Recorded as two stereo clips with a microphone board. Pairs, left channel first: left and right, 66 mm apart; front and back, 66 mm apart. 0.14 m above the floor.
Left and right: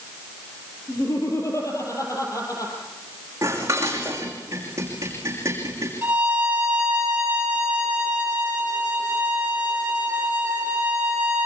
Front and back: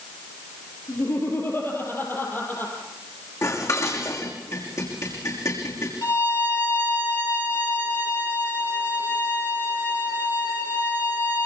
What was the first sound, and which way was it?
Laughter, 50° left.